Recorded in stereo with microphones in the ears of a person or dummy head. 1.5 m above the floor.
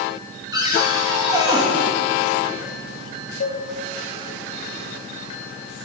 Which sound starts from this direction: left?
A cowbell, at 3.4 s.